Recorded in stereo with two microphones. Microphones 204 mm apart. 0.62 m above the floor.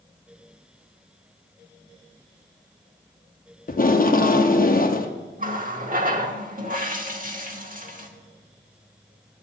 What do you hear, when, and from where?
3.7 s tape being pulled: 45° left (ahead or behind), 0.7 m
5.4 s a running tap: 45° right (ahead or behind), 1.1 m